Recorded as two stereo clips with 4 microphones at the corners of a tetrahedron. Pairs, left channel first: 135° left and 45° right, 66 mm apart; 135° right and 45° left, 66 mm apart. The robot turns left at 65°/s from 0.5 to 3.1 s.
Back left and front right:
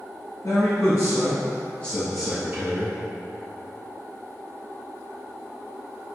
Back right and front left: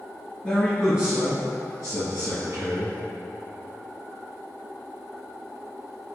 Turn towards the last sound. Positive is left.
turn(degrees=-20)